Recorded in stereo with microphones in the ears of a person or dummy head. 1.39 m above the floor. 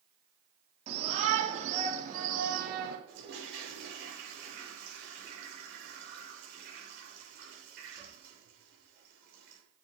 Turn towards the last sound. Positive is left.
turn(degrees=-65)  # may be behind; listen again after turning